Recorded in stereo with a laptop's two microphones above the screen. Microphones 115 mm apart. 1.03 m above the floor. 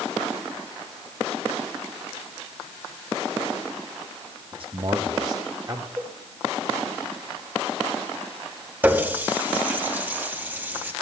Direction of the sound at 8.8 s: 15° right (ahead or behind).